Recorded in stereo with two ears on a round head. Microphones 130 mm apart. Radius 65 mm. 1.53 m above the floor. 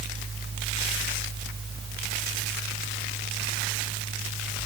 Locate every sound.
Only background noise.